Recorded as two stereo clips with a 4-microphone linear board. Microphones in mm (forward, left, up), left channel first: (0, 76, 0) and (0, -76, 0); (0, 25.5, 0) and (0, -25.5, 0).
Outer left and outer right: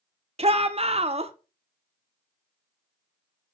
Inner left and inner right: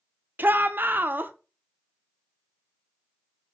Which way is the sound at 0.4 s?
40° right (ahead or behind).